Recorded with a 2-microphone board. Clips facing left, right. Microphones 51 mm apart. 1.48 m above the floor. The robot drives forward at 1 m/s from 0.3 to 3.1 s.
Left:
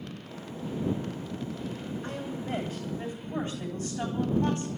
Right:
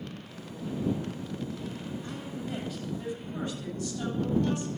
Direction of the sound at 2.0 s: 35° left (ahead or behind).